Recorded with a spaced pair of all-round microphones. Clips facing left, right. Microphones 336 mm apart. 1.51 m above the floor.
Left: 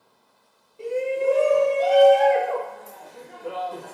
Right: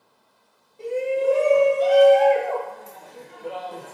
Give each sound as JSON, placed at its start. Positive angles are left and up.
{"t": 0.8, "sound": "a shout", "side_deg": 15, "distance_m": 1.6}